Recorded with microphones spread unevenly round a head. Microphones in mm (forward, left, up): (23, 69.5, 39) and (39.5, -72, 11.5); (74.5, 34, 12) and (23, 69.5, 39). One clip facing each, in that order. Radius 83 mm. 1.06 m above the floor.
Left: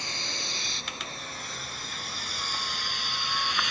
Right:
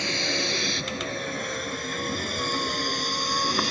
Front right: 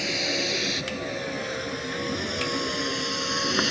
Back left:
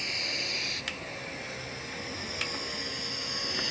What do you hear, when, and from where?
0.0 s a vehicle: 55° right; by 3.7 s 25° right